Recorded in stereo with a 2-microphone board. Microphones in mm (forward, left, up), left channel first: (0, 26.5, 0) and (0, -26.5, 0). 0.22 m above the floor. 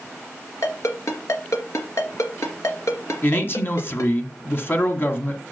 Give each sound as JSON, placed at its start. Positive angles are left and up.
{"t": 0.6, "sound": "a ringtone", "side_deg": 70, "distance_m": 2.0}
{"t": 3.2, "sound": "a man speaking", "side_deg": 45, "distance_m": 1.6}